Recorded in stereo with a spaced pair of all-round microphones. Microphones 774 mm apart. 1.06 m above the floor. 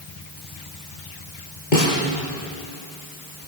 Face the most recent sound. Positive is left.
turn(degrees=75)  # may be behind; listen again after turning